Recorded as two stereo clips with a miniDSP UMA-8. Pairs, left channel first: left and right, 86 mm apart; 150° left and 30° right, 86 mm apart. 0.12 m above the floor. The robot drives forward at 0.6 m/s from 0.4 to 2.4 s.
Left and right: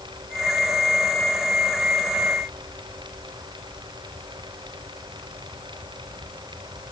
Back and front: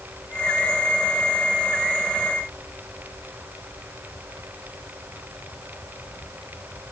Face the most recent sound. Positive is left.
No sound to turn to.